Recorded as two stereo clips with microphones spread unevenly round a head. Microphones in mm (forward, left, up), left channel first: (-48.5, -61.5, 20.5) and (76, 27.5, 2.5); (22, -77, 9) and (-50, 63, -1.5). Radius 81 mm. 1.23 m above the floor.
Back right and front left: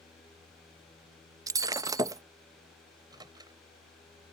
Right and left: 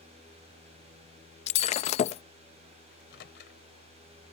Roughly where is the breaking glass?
Ahead right.